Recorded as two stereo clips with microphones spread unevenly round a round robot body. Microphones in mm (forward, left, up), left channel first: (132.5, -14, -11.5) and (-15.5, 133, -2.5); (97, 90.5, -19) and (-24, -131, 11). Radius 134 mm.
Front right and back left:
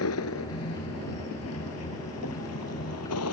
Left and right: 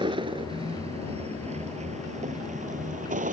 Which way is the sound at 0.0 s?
45° right.